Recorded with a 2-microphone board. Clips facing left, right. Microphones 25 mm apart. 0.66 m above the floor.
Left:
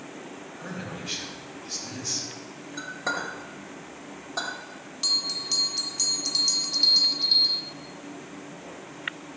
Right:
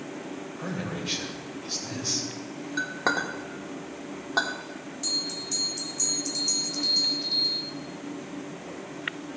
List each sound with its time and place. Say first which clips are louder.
0.6 s a man speaking: right 3 dB; 40° right (ahead or behind), 2.5 m
2.8 s a clink: right 4 dB; 45° right (ahead or behind), 1.3 m
5.0 s a bell: left 4 dB; 60° left (ahead or behind), 0.5 m